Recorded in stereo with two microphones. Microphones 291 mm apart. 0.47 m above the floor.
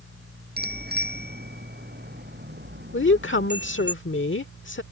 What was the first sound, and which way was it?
A bicycle bell, 35° right (ahead or behind).